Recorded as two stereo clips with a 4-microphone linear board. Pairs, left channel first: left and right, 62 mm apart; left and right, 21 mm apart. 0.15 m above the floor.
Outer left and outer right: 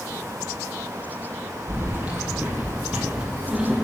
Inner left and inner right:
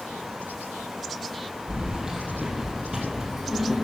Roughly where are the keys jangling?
Right.